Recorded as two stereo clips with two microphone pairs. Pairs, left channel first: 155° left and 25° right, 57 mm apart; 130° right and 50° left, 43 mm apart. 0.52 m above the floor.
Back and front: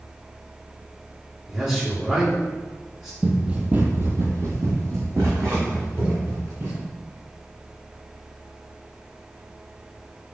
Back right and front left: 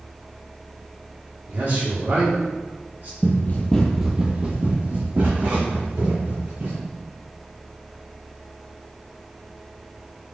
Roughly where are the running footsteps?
Right.